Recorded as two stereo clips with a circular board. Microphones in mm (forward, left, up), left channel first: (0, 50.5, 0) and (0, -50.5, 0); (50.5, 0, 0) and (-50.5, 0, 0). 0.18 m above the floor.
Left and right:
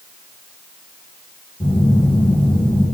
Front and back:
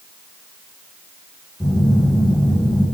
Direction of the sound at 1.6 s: 95° left.